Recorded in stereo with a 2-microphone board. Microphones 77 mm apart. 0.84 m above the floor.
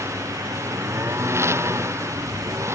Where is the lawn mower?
35° right (ahead or behind).